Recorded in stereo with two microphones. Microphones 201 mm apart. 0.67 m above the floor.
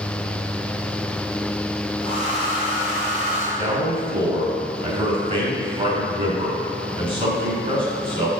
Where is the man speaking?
45° right (ahead or behind), 1.4 m.